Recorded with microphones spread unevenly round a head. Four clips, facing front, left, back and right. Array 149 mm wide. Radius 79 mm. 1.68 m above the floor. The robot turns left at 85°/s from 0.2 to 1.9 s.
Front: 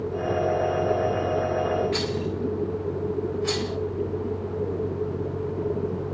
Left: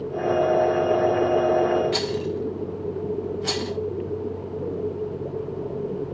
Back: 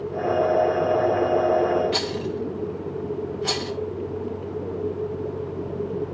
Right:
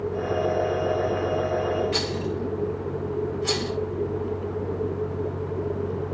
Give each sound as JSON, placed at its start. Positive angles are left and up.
{"t": 1.9, "sound": "a rattle", "azimuth_deg": 160, "distance_m": 1.6}